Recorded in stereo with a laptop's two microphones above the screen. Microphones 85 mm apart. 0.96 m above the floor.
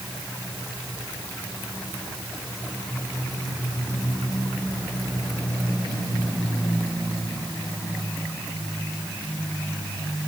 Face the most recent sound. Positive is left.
No sound to turn to.